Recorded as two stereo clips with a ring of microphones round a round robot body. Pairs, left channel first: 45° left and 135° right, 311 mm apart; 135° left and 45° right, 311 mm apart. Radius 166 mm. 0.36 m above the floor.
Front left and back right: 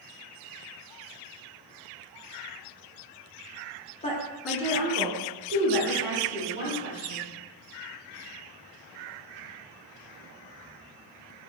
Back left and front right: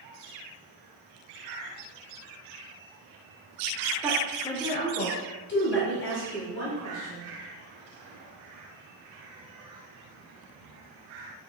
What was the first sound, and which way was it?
A woman speaking, 20° left.